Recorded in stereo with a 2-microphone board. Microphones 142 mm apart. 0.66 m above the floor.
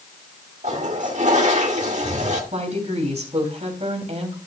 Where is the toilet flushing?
55° right (ahead or behind), 1.9 m.